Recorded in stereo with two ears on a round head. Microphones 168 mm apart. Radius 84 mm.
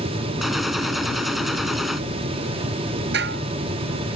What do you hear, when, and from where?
0.4 s a gunshot: centre (ahead or behind)
3.1 s dishes clattering: 65° right (ahead or behind)